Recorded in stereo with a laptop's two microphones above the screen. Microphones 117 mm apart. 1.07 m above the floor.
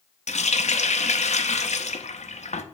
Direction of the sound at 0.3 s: 70° left (ahead or behind).